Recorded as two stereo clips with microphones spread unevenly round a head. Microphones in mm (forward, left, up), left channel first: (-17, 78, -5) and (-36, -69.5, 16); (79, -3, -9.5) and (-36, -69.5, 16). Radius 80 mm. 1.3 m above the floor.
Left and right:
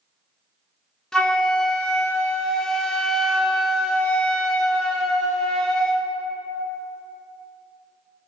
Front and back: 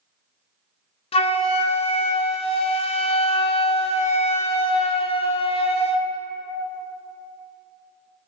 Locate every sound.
1.1 s a flute: 10° right, 0.7 m